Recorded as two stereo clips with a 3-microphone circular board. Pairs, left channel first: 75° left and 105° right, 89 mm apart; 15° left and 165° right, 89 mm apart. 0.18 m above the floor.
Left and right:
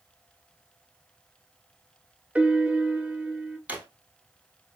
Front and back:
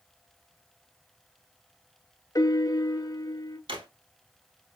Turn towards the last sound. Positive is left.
turn(degrees=-175)